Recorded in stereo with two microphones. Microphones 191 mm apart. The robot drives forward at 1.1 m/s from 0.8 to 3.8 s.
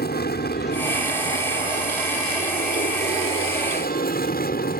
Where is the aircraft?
55° left (ahead or behind).